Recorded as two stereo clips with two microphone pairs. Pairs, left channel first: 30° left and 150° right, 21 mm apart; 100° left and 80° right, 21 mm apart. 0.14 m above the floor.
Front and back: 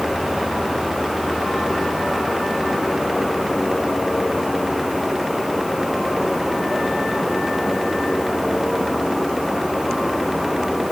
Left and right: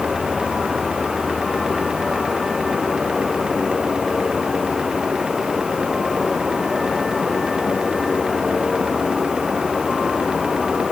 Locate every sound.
Only background noise.